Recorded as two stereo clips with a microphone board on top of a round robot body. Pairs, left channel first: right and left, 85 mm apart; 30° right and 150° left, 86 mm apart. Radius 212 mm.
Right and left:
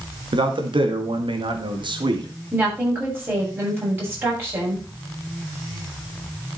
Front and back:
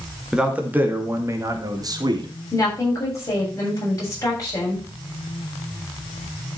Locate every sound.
0.3 s a man speaking: 70° left, 2.5 m; by 2.3 s 115° left, 2.5 m
2.5 s a woman speaking: 25° left, 8 m